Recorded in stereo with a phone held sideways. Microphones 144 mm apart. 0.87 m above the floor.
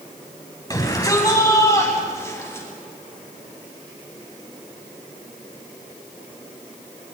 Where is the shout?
25° left (ahead or behind), 8 m; by 2.7 s 20° left (ahead or behind), 8.5 m.